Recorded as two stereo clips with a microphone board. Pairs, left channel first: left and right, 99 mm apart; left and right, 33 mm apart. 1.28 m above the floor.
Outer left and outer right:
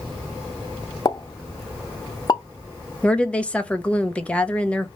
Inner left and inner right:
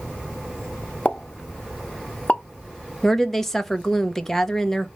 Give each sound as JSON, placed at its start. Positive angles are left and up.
{"t": 1.1, "sound": "a pop", "side_deg": 40, "distance_m": 0.6}
{"t": 3.0, "sound": "a woman speaking", "side_deg": 10, "distance_m": 0.7}